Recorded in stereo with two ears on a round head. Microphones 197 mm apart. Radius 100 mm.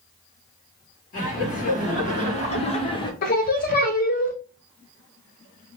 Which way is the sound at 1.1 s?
35° left (ahead or behind).